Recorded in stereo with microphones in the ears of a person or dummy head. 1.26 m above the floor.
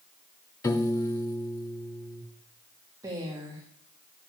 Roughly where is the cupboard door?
I don't hear a cupboard door.